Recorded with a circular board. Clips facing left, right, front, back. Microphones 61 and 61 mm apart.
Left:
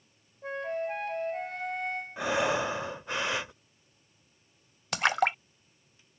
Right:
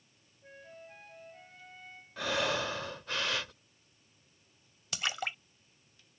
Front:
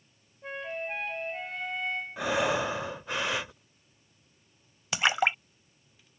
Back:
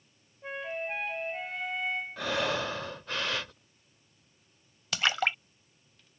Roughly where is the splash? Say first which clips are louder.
Left 10 dB, front 3 dB; left.